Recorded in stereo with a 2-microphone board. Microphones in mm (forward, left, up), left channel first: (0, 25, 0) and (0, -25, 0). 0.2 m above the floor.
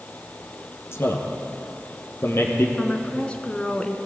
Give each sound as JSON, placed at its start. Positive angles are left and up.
{"t": 0.9, "sound": "a man speaking", "side_deg": 55, "distance_m": 4.0}
{"t": 2.8, "sound": "a woman speaking", "side_deg": 25, "distance_m": 2.0}